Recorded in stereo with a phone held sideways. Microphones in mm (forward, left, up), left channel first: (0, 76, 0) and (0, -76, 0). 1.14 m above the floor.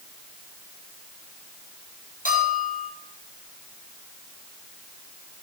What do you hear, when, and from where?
2.2 s a bell: 65° left (ahead or behind), 8.5 m